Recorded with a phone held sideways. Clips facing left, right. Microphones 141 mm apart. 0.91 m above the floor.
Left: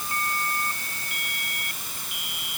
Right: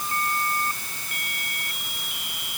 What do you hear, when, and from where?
Only background noise.